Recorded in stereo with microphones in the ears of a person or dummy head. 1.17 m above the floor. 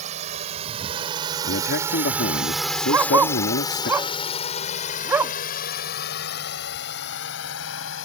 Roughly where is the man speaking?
Left.